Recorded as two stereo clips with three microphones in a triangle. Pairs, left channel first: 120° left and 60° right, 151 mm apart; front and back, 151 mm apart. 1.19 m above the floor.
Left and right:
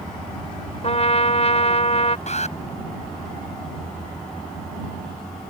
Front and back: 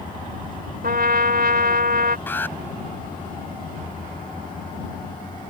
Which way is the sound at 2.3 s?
75° left.